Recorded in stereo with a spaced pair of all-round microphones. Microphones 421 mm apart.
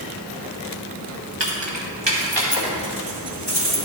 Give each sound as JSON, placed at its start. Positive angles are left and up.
{"t": 1.4, "sound": "keys jangling", "side_deg": -80, "distance_m": 1.6}